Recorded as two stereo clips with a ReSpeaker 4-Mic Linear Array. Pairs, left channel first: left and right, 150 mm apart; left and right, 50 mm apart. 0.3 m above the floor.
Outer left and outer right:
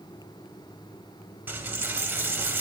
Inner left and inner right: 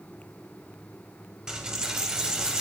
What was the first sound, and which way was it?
A dropped coin, 15° right (ahead or behind).